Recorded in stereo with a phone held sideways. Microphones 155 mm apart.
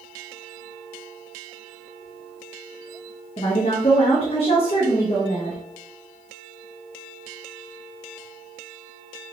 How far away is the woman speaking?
About 0.7 m.